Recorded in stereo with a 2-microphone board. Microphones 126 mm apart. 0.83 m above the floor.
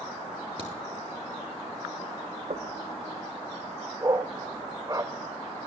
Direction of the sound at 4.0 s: 25° right (ahead or behind).